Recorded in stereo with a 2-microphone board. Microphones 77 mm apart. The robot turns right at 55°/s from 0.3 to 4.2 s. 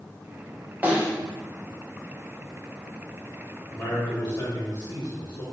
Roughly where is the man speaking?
Left.